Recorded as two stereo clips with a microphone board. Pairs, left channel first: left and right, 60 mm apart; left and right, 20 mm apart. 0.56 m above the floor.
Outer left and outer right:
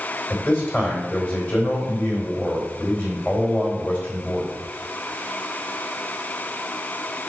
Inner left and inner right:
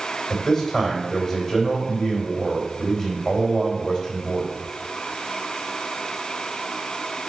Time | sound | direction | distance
0.3 | a man speaking | 35° left (ahead or behind) | 3 m